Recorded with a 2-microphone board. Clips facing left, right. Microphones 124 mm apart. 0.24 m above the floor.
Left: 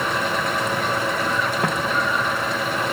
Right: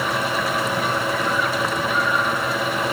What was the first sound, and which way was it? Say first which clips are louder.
Footsteps: left 1 dB; 60° left (ahead or behind).